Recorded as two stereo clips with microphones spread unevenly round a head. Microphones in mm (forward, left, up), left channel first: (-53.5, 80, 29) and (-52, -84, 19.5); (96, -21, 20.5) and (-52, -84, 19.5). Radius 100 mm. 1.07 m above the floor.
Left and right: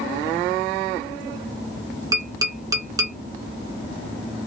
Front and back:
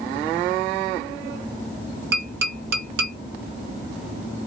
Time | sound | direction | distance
2.1 | tapping | 160° right | 1.2 m